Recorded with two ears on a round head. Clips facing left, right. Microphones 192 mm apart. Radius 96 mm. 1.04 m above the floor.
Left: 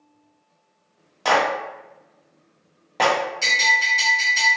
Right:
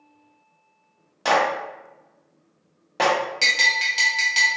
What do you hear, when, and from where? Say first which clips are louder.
1.2 s a clap: left 1 dB; 10° right (ahead or behind), 0.8 m
3.4 s a bell: left 3 dB; 75° right (ahead or behind), 0.9 m